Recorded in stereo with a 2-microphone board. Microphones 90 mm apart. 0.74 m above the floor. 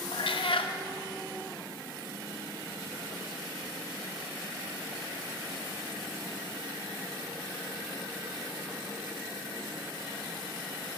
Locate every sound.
0.1 s a cat meowing: 70° left (ahead or behind), 0.5 m